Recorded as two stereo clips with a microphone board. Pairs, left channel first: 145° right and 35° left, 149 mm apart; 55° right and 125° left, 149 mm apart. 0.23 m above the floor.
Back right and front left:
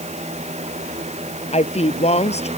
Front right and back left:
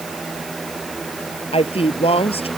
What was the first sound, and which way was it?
A woman speaking, 105° right.